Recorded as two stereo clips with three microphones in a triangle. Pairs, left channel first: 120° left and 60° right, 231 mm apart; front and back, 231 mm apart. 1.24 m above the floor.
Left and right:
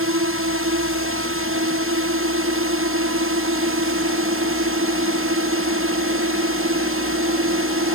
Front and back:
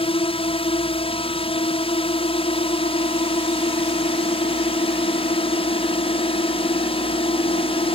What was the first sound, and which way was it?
A drone, 65° right.